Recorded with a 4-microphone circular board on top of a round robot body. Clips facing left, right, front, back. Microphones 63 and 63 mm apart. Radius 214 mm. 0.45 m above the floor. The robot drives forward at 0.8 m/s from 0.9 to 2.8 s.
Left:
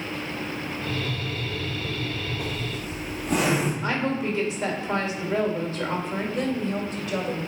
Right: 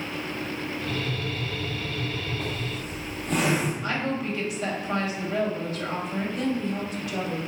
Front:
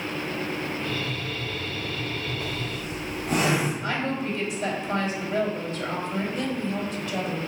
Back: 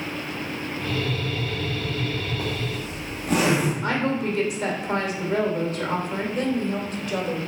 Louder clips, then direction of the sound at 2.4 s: Left 1 dB, back 3 dB; 175° left.